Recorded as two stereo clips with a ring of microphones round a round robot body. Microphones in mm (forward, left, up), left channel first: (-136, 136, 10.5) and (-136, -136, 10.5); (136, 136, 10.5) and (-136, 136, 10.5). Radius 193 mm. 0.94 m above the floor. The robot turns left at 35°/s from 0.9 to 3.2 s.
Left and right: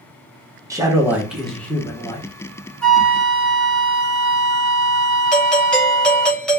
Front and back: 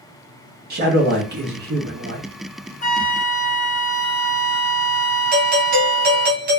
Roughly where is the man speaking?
Behind.